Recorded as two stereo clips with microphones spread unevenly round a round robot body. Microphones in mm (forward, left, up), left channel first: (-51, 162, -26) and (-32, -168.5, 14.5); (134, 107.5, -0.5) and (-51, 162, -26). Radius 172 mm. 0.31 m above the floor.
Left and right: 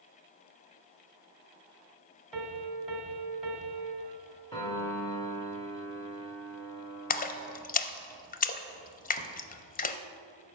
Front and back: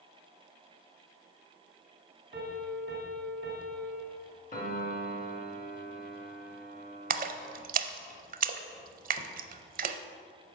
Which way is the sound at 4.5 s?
25° left.